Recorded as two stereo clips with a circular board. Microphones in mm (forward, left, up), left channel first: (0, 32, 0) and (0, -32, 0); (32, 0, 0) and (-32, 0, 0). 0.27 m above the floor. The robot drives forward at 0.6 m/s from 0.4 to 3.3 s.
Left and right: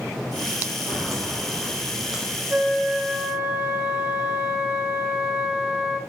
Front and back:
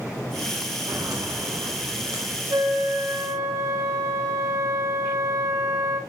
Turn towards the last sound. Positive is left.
turn(degrees=-165)